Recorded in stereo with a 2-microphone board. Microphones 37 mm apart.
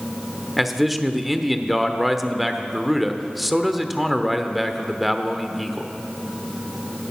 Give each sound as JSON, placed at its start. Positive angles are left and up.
{"t": 0.6, "sound": "a man speaking", "side_deg": -5, "distance_m": 1.0}